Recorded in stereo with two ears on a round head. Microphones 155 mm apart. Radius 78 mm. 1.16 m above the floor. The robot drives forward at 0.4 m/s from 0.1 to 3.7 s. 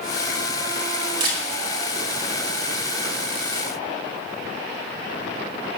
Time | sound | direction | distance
1.2 | a camera shutter | 30° right (ahead or behind) | 5 m